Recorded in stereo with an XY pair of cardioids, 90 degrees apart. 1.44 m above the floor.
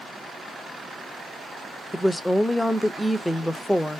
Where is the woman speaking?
5° left, 0.6 m.